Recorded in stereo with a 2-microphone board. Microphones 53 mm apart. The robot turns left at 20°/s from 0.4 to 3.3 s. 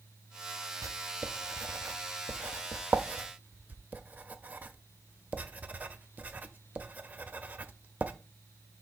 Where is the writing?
75° right (ahead or behind), 0.6 m; by 8.1 s 30° right (ahead or behind), 0.6 m.